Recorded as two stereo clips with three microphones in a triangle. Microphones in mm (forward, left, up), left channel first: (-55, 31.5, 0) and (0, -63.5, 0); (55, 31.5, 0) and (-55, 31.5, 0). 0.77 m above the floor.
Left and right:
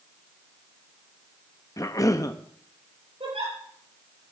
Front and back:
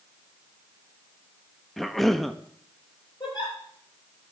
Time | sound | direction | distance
1.8 | a cough | 90° left | 0.6 m
3.2 | a giggle | 40° right | 7.5 m